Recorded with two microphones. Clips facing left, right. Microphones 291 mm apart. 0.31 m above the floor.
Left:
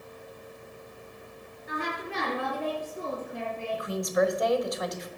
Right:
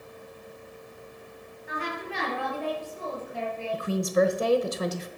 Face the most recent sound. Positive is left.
turn(degrees=-35)  # may be behind; listen again after turning